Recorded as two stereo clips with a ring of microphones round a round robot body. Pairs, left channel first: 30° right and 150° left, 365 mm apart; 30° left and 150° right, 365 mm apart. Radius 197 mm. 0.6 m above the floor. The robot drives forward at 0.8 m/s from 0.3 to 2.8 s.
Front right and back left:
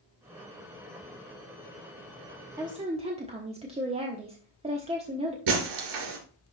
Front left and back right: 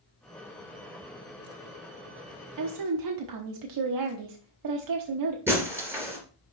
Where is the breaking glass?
125° left, 2.5 m.